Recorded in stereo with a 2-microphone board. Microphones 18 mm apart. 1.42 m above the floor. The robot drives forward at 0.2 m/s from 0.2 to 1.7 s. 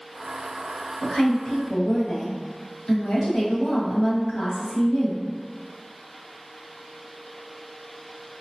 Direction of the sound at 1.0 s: 80° left.